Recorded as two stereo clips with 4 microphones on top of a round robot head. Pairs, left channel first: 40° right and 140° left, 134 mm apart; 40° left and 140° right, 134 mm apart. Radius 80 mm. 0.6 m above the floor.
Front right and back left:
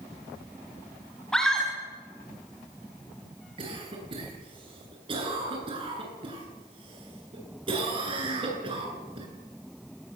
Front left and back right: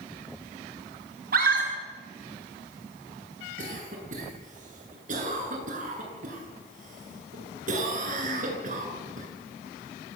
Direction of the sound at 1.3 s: 130° right.